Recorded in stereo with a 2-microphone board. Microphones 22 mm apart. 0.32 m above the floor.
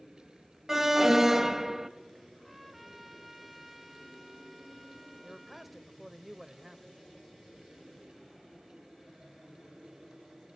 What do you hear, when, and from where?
0.7 s an alarm: 10° right (ahead or behind), 0.9 m
2.4 s a trumpet: 10° right (ahead or behind), 2.0 m
5.2 s a man speaking: 10° right (ahead or behind), 0.9 m